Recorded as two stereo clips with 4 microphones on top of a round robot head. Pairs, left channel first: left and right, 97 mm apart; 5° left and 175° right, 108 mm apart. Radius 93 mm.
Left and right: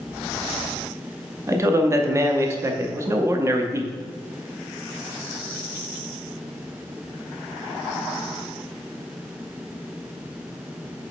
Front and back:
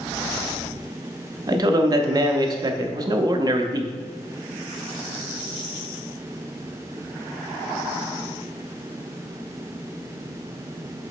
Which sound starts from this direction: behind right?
A man speaking, at 1.5 s.